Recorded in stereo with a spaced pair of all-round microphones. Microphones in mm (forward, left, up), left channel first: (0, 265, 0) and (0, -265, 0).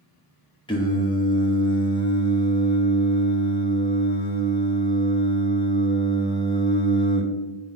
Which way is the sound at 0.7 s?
10° left (ahead or behind).